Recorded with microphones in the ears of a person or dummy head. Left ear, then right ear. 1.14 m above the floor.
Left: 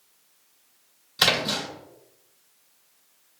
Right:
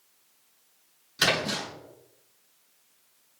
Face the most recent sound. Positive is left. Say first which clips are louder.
# left 3 dB
turn(degrees=5)  # may be behind; listen again after turning